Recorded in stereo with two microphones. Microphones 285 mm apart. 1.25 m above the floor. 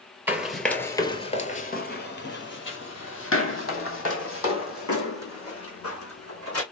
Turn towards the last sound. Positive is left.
turn(degrees=55)  # may be behind; listen again after turning